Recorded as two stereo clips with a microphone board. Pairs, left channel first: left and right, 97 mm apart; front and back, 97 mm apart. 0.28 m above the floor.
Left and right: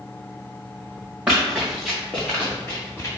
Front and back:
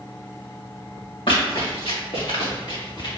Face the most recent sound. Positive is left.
turn(degrees=30)